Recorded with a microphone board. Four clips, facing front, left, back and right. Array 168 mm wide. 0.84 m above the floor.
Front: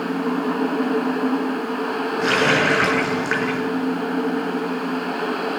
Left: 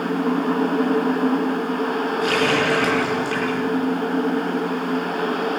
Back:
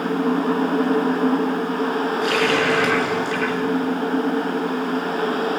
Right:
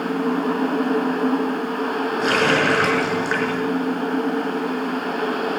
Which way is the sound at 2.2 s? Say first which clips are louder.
Right 2 dB, front 3 dB; 40° right.